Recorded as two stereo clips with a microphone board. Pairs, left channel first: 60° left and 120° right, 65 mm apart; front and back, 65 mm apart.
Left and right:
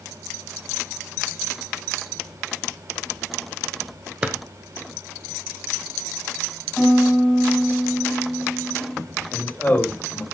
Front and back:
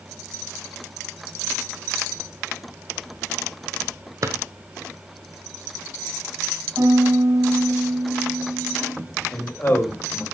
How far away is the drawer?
About 1.1 m.